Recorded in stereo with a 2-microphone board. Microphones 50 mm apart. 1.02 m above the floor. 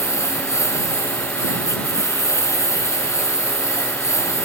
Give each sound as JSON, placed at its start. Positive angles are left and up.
{"t": 0.0, "sound": "a lawn mower", "side_deg": 90}